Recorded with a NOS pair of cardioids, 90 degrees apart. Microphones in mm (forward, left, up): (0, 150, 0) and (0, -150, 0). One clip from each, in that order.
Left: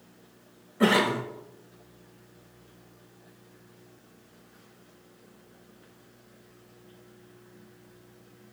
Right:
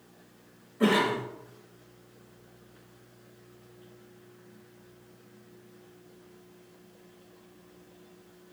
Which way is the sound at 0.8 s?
20° left.